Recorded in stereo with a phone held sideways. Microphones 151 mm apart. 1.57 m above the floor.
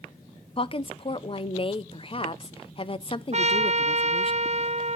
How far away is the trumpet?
About 0.6 m.